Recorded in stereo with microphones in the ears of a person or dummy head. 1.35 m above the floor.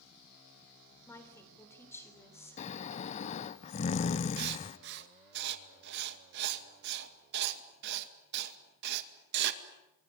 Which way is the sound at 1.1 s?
10° left (ahead or behind).